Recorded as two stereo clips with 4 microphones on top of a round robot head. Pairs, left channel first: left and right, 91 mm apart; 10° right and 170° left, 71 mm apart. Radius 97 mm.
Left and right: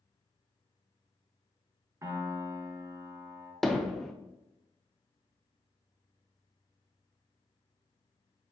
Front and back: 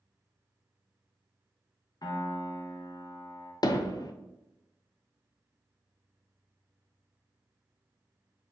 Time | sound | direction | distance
2.0 | a piano | 35° right | 1.0 m
3.6 | hammering | 5° left | 0.6 m